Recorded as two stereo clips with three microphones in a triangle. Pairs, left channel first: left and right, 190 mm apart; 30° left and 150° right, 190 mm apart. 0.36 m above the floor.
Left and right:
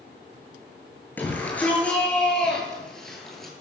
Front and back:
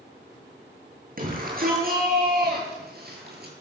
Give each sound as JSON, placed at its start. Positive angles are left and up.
{"t": 1.2, "sound": "a shout", "azimuth_deg": 170, "distance_m": 8.0}